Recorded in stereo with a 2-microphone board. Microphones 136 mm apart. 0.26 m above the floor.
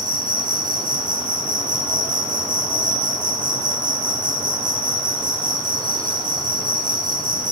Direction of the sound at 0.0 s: 70° right (ahead or behind).